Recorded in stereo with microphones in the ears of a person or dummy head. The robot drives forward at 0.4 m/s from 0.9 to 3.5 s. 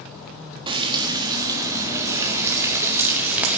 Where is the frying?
30° right (ahead or behind), 1.6 m; by 3.6 s 20° right (ahead or behind), 2.5 m.